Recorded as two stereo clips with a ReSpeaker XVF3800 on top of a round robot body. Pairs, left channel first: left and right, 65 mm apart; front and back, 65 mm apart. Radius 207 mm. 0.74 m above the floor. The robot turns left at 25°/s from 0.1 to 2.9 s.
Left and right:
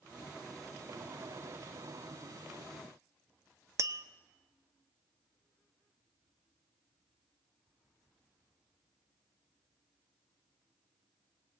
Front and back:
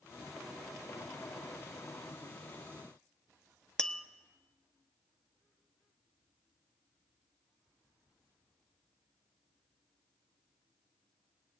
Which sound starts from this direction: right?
Tapping, at 3.8 s.